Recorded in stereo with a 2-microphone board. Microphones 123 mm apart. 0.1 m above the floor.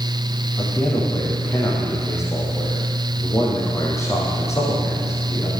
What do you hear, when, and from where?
0.6 s a man speaking: 25° left (ahead or behind), 5 m